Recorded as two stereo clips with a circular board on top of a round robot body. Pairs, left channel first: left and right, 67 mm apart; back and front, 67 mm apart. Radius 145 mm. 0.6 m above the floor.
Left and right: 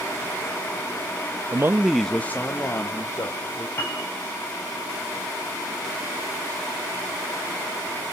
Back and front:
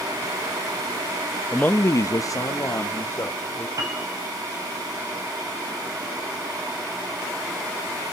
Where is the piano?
35° left, 5.5 m.